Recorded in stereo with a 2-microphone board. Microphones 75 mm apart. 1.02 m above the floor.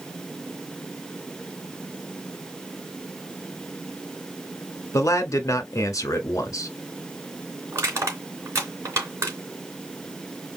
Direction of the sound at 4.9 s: 50° left (ahead or behind).